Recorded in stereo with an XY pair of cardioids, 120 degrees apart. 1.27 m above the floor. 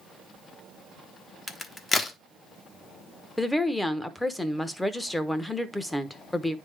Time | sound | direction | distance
1.5 | a crack | 30° left | 1.0 m
3.4 | a woman speaking | 10° left | 0.9 m